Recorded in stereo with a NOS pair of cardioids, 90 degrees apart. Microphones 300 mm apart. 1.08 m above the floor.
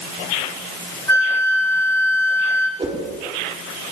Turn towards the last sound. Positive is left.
turn(degrees=-20)